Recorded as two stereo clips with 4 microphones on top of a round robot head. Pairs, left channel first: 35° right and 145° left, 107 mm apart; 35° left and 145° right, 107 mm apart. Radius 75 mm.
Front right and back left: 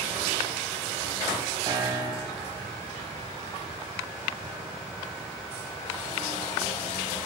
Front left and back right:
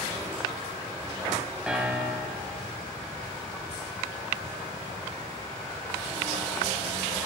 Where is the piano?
135° left, 1.3 m.